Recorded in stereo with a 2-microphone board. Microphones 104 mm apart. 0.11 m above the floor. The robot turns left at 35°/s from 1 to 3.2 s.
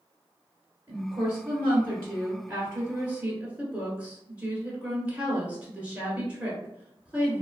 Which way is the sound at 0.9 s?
20° right (ahead or behind).